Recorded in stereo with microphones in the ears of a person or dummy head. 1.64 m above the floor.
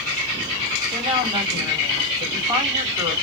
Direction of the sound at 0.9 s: 15° right (ahead or behind).